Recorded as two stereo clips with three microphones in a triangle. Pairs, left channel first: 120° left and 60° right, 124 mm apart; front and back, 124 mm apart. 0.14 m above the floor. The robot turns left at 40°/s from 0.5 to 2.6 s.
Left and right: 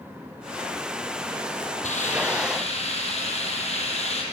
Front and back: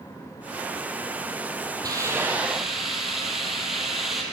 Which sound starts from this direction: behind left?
A hiss, at 1.8 s.